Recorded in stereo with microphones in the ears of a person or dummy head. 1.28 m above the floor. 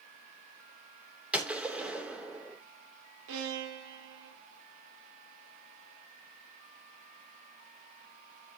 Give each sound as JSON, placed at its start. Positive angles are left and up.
{"t": 1.3, "sound": "a gunshot", "side_deg": 0, "distance_m": 2.5}
{"t": 3.3, "sound": "a violin", "side_deg": -70, "distance_m": 1.8}